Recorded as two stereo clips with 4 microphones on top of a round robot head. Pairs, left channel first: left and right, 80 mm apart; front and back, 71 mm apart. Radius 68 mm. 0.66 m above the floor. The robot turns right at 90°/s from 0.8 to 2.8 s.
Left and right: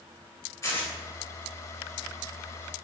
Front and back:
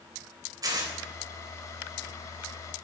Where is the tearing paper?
150° left, 3.5 m; by 0.9 s 160° left, 3.5 m.